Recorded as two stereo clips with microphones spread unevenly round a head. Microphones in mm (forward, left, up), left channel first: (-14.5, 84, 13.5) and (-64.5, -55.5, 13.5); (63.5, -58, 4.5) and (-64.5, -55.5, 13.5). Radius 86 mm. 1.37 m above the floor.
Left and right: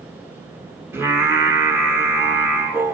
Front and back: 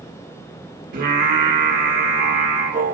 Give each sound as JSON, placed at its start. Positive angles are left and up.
{"t": 0.9, "sound": "singing", "azimuth_deg": 175, "distance_m": 1.4}